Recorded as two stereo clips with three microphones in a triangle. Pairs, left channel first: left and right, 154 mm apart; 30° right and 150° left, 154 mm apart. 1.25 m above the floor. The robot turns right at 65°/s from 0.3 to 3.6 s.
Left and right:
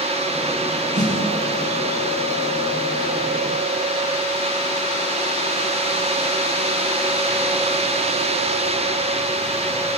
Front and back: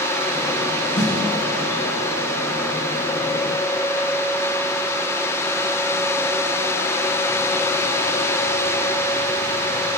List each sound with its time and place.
0.9 s a snare drum: 65° right, 6.5 m; by 1.1 s 55° right, 6.5 m